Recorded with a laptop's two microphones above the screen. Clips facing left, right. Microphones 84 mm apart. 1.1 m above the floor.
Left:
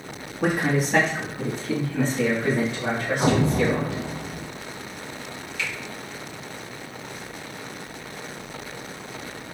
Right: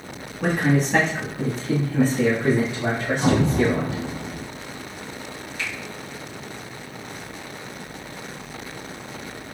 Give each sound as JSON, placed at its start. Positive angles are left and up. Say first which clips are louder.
{"t": 0.4, "sound": "a man speaking", "louder": "right 2 dB", "side_deg": 10, "distance_m": 1.5}
{"t": 3.2, "sound": "an explosion", "louder": "right 1 dB", "side_deg": 45, "distance_m": 1.4}
{"t": 5.6, "sound": "a finger snap", "louder": "left 1 dB", "side_deg": -40, "distance_m": 1.7}